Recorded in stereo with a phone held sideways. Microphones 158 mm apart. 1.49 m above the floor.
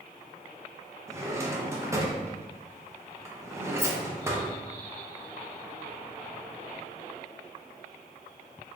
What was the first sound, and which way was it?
A drawer, 15° right (ahead or behind).